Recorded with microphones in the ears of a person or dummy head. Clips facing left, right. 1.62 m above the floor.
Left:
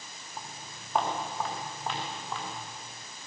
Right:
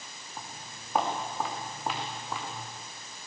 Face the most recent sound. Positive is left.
turn(degrees=-15)  # may be behind; listen again after turning